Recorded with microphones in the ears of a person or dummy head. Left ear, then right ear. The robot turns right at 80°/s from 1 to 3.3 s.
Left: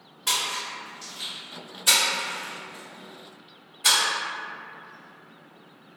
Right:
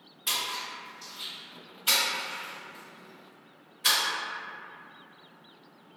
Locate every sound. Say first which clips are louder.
0.3 s a splash: left 4 dB; 5° right (ahead or behind), 1.5 m; by 4.0 s centre (ahead or behind), 1.5 m